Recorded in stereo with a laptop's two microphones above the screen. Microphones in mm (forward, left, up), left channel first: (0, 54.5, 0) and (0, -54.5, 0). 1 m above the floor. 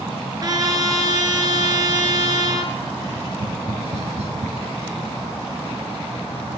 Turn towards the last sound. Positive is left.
turn(degrees=-85)